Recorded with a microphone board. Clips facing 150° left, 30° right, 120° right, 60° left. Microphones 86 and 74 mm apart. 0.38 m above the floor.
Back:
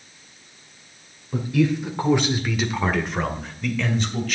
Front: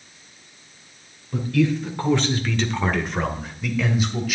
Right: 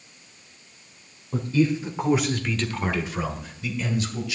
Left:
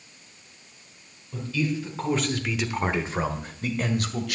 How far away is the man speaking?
About 1.3 m.